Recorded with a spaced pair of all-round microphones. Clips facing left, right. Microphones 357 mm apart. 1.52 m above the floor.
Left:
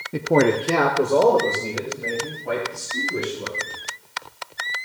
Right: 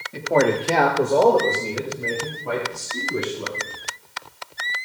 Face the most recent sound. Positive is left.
turn(degrees=-10)  # may be behind; listen again after turning